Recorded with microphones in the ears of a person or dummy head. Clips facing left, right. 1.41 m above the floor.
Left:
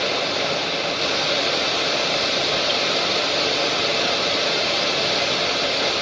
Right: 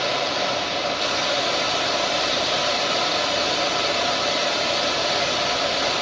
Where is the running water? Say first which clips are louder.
Even; 30° left (ahead or behind), 1.0 m.